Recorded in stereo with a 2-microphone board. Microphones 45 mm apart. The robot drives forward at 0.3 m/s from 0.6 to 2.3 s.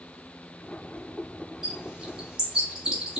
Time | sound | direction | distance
1.6 | a bird | 15° right (ahead or behind) | 1.1 m